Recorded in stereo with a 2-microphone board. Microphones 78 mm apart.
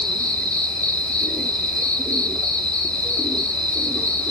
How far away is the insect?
About 0.8 m.